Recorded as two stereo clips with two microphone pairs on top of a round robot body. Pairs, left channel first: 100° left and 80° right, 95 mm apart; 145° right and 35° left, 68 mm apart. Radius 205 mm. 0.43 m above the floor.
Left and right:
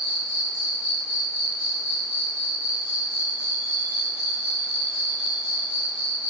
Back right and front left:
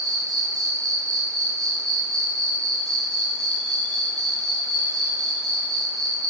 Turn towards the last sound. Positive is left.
turn(degrees=45)